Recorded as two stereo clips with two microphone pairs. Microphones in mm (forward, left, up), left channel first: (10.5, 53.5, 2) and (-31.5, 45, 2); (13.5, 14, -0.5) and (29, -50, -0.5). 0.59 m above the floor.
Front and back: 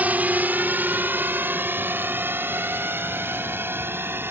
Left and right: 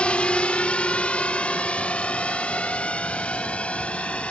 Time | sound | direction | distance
0.0 | a drone | 170° left | ?